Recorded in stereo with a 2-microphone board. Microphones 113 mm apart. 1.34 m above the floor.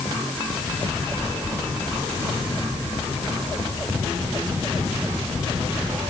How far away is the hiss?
No hiss in this recording.